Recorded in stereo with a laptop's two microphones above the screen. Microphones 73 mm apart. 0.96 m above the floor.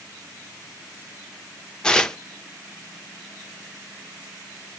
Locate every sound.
1.8 s tearing paper: 10° left (ahead or behind), 0.6 m